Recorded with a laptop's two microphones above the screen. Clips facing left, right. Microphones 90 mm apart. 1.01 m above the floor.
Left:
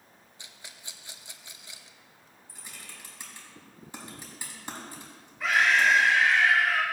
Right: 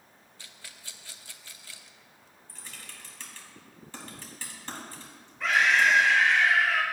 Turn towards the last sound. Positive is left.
turn(degrees=5)  # may be behind; listen again after turning